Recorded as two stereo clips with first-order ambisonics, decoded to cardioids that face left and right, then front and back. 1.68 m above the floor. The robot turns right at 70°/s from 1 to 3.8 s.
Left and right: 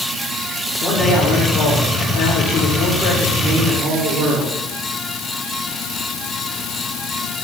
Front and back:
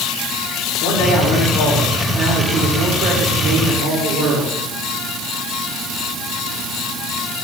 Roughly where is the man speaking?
Ahead.